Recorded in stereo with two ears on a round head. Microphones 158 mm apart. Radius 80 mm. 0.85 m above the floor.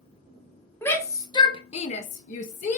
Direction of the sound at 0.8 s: 10° left (ahead or behind).